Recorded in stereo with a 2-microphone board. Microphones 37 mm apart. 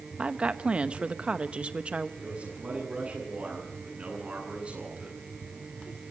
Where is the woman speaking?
35° right (ahead or behind), 0.9 m.